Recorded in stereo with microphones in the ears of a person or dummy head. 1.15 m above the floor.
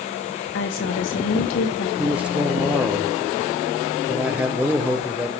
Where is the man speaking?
5° right (ahead or behind), 0.7 m.